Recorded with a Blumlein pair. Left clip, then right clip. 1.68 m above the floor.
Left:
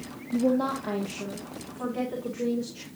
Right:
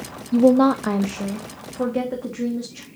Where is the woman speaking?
30° right, 0.5 m; by 2.9 s 70° right, 3 m.